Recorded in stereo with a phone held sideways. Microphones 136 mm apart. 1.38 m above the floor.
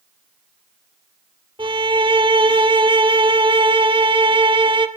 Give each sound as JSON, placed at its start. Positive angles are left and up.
{"t": 1.6, "sound": "a violin", "side_deg": -40, "distance_m": 1.7}